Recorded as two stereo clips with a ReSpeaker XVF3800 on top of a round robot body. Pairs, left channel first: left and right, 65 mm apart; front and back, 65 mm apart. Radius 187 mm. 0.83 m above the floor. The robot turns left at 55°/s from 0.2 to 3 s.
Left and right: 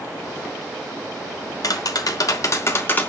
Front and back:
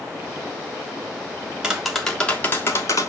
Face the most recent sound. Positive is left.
turn(degrees=30)